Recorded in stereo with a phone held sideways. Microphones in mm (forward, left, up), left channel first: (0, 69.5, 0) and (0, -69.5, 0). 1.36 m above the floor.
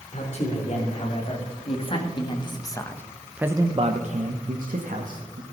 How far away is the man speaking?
About 3.5 m.